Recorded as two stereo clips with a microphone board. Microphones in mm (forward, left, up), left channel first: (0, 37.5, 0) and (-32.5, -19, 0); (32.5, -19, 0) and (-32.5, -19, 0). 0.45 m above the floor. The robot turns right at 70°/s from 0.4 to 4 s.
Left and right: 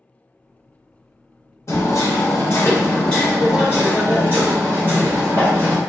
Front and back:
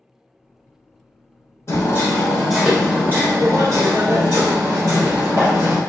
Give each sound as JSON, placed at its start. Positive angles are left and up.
{"t": 1.7, "sound": "hammering", "azimuth_deg": 30, "distance_m": 1.4}